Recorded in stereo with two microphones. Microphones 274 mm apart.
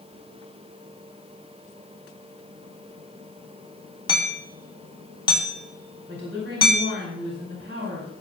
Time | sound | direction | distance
4.1 | hammering | 15° left (ahead or behind) | 1.9 m
6.1 | a woman speaking | 45° right (ahead or behind) | 4 m